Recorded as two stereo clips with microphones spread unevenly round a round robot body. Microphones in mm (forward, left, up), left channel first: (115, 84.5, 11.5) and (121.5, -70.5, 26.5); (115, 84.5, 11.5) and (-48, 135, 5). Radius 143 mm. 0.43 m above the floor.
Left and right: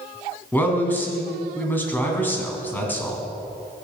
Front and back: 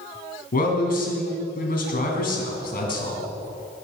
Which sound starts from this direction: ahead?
A man speaking, at 0.5 s.